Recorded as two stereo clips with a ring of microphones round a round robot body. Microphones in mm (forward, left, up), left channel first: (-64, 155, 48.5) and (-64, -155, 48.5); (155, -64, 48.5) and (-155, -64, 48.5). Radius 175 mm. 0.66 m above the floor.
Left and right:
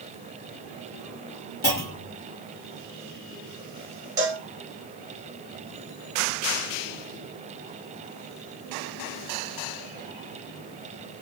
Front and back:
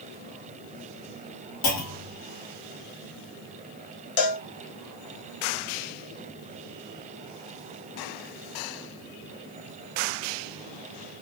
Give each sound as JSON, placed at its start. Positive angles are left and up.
{"t": 1.6, "sound": "a clunk", "azimuth_deg": 30, "distance_m": 1.0}
{"t": 4.2, "sound": "a cowbell", "azimuth_deg": -10, "distance_m": 0.7}